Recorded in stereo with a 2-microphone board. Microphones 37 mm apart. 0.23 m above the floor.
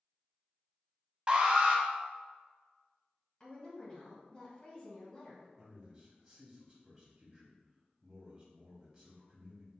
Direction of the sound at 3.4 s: 25° left (ahead or behind).